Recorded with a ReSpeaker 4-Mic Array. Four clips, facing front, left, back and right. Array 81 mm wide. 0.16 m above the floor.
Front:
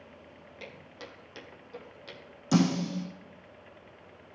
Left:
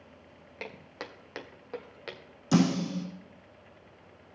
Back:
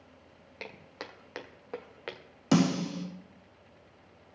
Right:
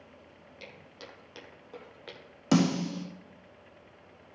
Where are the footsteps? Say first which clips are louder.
Left 7 dB, back 3 dB; 120° left, 2.5 m; by 2.2 s 170° left, 2.0 m.